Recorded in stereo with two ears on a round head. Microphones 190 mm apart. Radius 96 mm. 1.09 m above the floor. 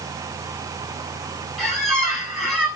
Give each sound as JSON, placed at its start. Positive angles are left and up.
{"t": 1.6, "sound": "a squeak", "side_deg": 5, "distance_m": 2.5}